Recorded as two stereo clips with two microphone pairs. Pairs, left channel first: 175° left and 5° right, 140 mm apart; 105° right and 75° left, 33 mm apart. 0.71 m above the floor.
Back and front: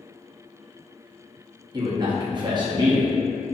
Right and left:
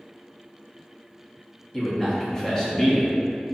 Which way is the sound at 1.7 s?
45° right.